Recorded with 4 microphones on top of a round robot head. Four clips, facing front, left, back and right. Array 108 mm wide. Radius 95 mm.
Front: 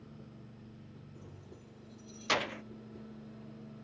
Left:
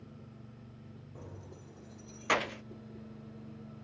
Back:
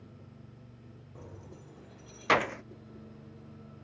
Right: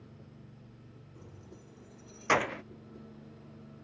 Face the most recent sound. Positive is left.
turn(degrees=-100)